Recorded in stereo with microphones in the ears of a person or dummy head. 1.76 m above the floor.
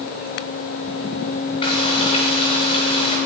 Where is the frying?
25° left (ahead or behind), 8.5 m.